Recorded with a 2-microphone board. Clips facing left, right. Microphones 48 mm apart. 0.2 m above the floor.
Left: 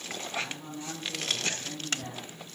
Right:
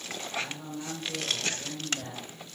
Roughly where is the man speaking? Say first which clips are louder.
Right 1 dB; right.